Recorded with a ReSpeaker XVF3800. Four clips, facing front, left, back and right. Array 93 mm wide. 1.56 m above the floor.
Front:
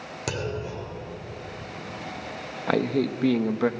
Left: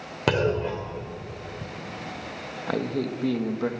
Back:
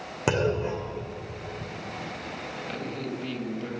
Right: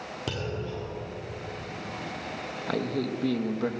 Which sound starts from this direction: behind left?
A clunk, at 0.3 s.